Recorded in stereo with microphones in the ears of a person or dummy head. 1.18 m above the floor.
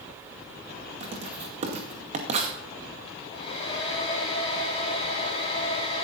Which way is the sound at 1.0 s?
35° right (ahead or behind).